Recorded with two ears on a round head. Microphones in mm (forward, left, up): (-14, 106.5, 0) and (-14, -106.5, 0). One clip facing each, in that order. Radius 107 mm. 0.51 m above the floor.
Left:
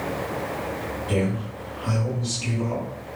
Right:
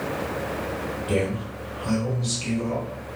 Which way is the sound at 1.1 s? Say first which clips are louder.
Even; 45° right (ahead or behind).